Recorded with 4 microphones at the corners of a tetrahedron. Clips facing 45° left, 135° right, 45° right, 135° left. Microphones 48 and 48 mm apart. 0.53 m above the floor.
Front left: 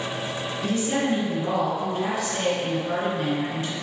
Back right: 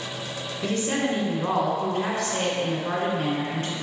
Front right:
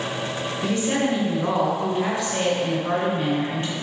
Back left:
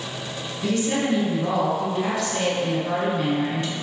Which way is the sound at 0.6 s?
95° right.